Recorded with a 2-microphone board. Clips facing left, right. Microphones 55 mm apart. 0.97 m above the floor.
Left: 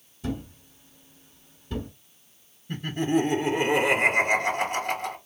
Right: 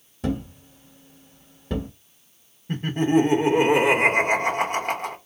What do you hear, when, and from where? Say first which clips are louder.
0.2 s a thud: right 5 dB; 75° right (ahead or behind), 1.4 m
2.7 s laughter: right 4 dB; 50° right (ahead or behind), 1.4 m